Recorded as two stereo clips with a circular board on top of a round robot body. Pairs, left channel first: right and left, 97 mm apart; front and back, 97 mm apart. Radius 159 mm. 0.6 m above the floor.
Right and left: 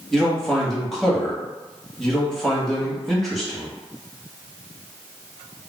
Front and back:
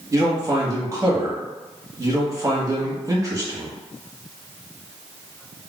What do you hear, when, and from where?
0.1 s a man speaking: 175° right, 1.3 m